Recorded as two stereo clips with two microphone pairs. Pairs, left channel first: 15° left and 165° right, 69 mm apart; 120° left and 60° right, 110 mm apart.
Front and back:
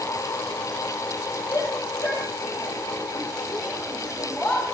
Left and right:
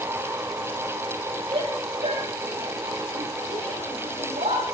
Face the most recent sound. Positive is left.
turn(degrees=-40)